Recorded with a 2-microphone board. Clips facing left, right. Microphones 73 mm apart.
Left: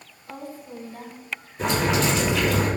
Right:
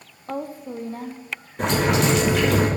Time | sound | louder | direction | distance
0.3 | a woman speaking | right 7 dB | 50° right (ahead or behind) | 0.8 m
1.6 | boiling | right 2 dB | 60° right (ahead or behind) | 3.5 m